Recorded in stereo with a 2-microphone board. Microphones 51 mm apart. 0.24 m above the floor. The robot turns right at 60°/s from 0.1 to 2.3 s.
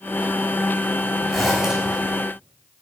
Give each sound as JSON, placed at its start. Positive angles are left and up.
{"t": 1.3, "sound": "a zipper", "azimuth_deg": 175, "distance_m": 1.9}